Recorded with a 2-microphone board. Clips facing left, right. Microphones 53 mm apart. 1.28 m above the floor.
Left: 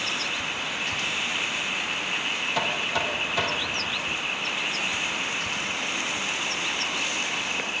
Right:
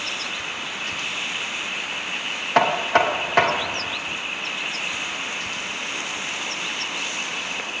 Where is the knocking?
50° right (ahead or behind), 0.7 m.